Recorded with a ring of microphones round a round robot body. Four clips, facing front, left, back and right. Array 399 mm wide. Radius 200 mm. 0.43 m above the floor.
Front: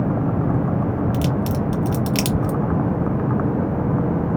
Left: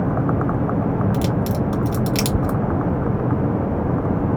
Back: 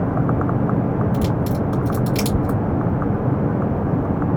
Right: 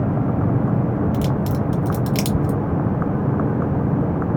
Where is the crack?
20° left, 1.0 m.